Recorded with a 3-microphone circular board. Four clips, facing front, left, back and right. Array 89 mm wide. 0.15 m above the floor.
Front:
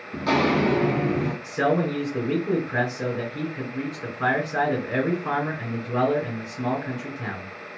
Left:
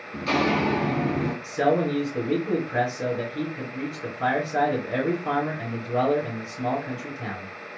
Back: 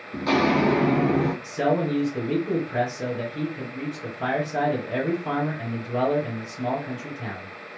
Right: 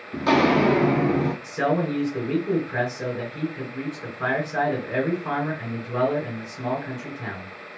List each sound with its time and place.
0.1 s footsteps: 80° right, 1.1 m; by 1.3 s 155° right, 0.9 m
1.4 s a man speaking: 20° right, 1.9 m